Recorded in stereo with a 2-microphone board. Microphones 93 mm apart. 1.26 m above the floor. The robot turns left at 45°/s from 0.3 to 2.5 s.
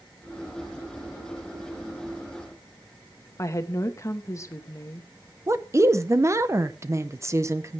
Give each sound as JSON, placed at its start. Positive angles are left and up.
{"t": 3.4, "sound": "a woman speaking", "side_deg": 35, "distance_m": 1.2}
{"t": 5.5, "sound": "a woman speaking", "side_deg": -35, "distance_m": 0.7}